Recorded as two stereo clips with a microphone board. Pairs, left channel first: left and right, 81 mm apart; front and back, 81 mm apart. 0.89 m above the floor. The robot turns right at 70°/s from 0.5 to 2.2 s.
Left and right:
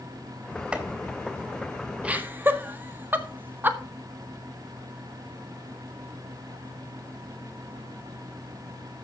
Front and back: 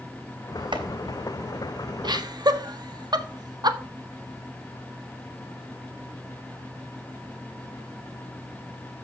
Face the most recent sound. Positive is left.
turn(degrees=-155)